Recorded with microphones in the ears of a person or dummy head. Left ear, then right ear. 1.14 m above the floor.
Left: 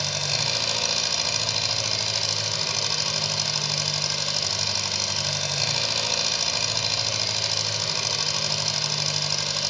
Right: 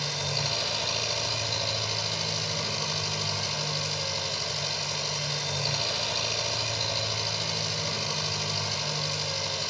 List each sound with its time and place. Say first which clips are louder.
0.0 s an engine running: left 4 dB; 85° left, 7.5 m